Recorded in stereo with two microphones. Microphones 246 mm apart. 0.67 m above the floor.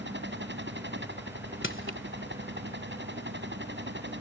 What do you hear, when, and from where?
0.0 s a helicopter: 45° right (ahead or behind)
1.6 s crushing: 55° left (ahead or behind)